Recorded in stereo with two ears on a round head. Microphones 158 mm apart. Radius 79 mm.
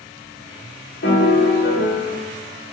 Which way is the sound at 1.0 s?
65° left (ahead or behind).